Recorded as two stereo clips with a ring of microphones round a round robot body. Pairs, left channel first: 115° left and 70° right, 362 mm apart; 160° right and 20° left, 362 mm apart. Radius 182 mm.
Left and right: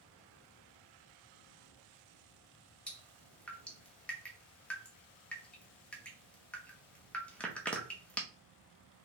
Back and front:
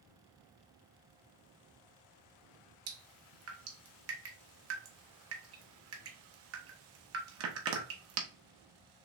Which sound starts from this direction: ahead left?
Dripping, at 2.9 s.